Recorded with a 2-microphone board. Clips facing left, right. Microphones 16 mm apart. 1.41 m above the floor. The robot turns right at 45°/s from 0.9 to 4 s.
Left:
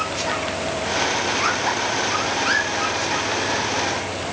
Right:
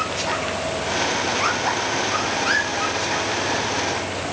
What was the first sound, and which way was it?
Only background noise.